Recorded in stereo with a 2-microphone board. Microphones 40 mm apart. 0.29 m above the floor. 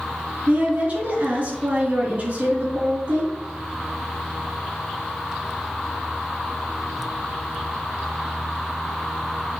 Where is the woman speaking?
50° right (ahead or behind), 3.5 m.